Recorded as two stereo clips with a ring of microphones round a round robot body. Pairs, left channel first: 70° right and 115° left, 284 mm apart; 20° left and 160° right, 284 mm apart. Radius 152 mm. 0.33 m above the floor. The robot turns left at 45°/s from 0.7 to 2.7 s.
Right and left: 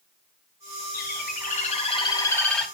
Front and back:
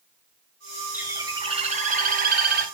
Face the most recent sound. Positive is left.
turn(degrees=-155)